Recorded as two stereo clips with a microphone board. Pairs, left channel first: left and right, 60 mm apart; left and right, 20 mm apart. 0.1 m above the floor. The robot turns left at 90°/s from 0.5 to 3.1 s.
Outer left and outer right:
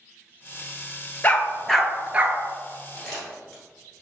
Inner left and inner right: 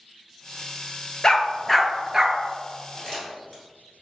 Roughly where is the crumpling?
Centre.